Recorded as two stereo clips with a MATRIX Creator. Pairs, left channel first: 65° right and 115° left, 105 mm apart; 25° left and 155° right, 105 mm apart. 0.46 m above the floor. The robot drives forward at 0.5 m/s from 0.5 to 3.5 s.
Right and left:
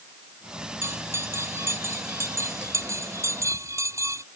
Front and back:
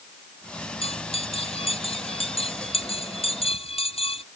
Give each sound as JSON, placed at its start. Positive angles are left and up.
{"t": 0.8, "sound": "a bell", "azimuth_deg": 45}